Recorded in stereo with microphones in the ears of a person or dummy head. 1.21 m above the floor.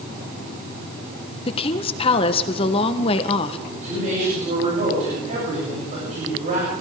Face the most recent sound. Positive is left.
turn(degrees=-40)  # may be behind; listen again after turning